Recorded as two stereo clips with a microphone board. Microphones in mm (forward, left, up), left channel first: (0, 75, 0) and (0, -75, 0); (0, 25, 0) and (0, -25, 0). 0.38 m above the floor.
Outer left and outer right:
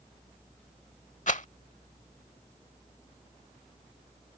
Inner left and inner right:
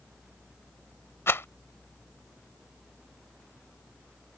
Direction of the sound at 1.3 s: 55° left (ahead or behind).